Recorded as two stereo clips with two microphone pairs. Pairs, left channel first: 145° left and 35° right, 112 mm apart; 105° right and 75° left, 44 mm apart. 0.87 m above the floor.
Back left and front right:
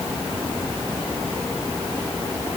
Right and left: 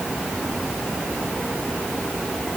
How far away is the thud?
I don't hear a thud.